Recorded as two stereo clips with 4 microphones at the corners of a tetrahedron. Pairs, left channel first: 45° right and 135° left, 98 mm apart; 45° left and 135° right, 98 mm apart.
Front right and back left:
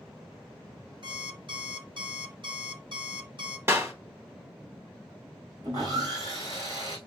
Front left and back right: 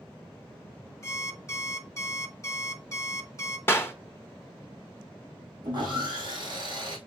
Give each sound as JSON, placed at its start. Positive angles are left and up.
{"t": 1.0, "sound": "an alarm clock", "azimuth_deg": 105, "distance_m": 1.2}
{"t": 3.7, "sound": "a clap", "azimuth_deg": 95, "distance_m": 1.2}
{"t": 5.6, "sound": "sawing", "azimuth_deg": -175, "distance_m": 3.5}